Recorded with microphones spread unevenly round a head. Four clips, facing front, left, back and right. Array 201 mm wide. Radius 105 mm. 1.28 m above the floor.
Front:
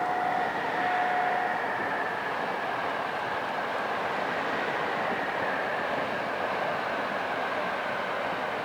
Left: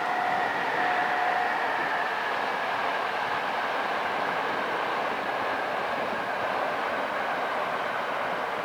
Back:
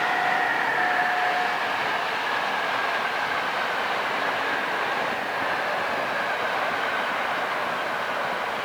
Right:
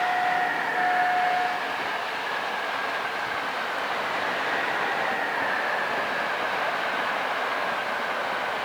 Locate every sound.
Only background noise.